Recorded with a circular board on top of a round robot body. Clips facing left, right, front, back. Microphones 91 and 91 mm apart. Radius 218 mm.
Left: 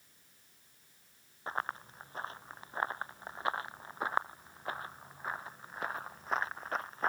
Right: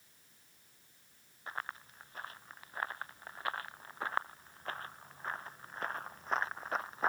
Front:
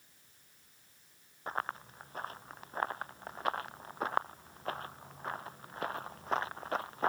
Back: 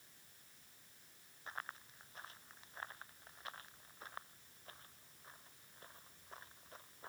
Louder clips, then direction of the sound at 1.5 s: Left 5 dB, front 11 dB; 35° left.